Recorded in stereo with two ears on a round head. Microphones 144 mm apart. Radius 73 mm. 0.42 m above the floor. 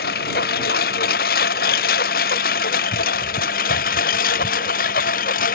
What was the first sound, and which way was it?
A lawn mower, 60° left (ahead or behind).